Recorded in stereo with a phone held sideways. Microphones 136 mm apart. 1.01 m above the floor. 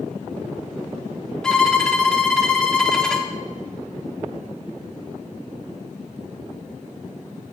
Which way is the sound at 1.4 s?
5° left (ahead or behind).